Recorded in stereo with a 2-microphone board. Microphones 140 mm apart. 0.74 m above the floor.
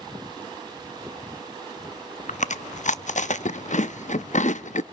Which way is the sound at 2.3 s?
60° left (ahead or behind).